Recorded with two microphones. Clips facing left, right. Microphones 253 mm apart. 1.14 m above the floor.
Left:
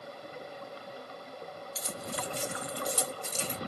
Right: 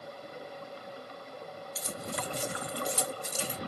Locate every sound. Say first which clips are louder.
1.8 s keys jangling: right 1 dB; 60° right (ahead or behind), 1.2 m; by 3.6 s 5° right (ahead or behind), 1.0 m